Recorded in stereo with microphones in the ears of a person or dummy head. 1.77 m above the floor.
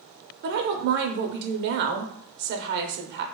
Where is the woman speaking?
55° right (ahead or behind), 0.6 m.